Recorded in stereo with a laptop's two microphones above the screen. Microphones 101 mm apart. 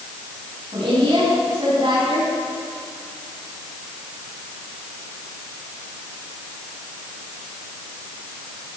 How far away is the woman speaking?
About 6.5 m.